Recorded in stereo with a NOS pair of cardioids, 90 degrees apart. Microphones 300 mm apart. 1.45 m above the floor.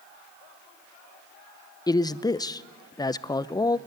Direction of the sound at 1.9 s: 15° left.